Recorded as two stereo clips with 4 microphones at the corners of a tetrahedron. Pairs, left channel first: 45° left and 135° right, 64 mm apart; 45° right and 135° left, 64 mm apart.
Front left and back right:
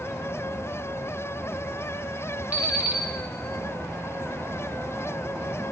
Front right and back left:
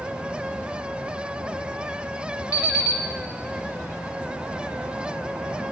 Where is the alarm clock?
70° right, 1.7 m.